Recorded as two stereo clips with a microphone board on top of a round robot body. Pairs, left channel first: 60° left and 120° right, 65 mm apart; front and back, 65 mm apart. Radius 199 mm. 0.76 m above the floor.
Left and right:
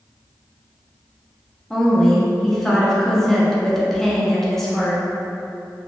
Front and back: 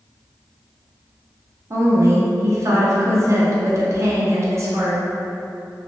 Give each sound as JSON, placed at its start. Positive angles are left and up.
{"t": 1.7, "sound": "a woman speaking", "azimuth_deg": 145, "distance_m": 0.9}